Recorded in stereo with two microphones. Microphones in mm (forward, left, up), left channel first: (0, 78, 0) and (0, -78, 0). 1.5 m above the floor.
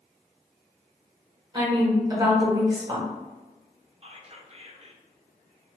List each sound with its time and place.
1.5 s a woman speaking: 30° right (ahead or behind), 1.0 m
4.0 s whispering: 40° right (ahead or behind), 0.5 m